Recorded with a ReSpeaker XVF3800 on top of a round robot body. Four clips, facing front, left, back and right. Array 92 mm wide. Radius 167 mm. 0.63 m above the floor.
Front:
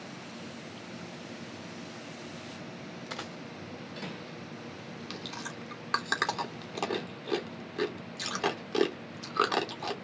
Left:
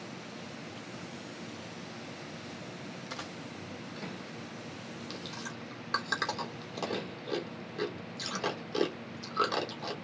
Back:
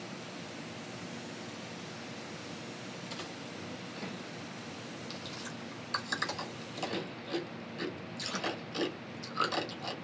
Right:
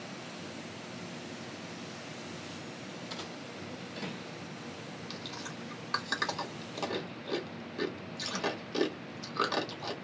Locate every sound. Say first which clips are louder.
3.1 s a dropped coin: left 1 dB, front 5 dB; 15° left, 2 m
5.1 s chewing: left 1 dB, front 3 dB; straight ahead, 3 m